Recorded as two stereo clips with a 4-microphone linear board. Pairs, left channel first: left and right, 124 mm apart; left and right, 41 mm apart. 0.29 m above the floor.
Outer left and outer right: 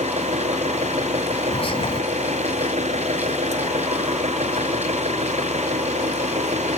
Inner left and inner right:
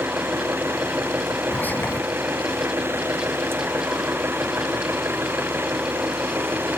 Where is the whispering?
50° left (ahead or behind).